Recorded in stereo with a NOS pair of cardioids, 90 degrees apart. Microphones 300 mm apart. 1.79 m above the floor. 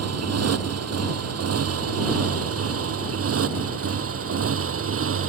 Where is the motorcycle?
55° right; by 5.3 s 45° right.